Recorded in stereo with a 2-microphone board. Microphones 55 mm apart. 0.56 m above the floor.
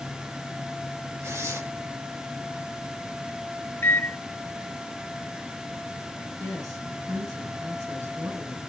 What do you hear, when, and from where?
1.2 s tearing paper: 70° right (ahead or behind), 9.5 m
3.8 s a microwave: 50° left (ahead or behind), 1.1 m
6.4 s a woman speaking: 85° right, 6 m